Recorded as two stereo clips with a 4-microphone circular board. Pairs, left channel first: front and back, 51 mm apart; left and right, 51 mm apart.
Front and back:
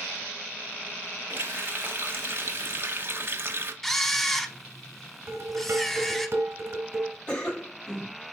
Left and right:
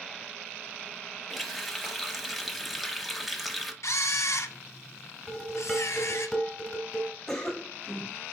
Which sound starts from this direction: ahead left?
A cough, at 7.3 s.